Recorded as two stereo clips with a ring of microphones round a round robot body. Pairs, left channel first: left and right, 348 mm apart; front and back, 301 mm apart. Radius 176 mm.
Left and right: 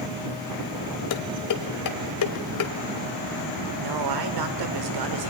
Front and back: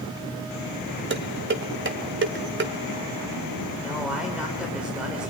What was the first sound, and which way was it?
Dishes clattering, 130° left.